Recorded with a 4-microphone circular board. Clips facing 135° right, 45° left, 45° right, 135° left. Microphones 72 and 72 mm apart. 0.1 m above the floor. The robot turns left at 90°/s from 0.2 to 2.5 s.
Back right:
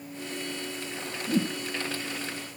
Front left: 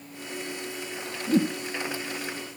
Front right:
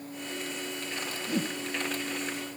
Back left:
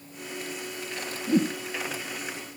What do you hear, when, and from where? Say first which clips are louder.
1.3 s a whoosh: front left 4 dB, back left 8 dB; 100° left, 1.9 m; by 1.6 s 75° left, 1.9 m